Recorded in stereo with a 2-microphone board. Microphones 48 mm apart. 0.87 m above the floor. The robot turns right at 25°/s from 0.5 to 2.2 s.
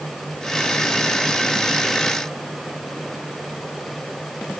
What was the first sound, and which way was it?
Only background noise.